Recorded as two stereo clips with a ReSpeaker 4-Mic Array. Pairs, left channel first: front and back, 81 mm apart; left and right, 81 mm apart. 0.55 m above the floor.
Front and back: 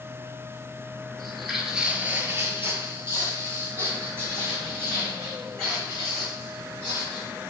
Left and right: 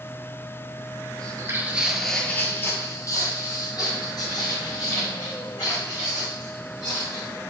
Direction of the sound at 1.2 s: 85° right.